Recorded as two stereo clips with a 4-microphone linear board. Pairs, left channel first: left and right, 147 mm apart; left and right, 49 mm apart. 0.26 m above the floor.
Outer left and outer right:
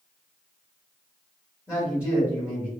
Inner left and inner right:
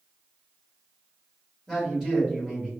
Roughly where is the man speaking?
Centre.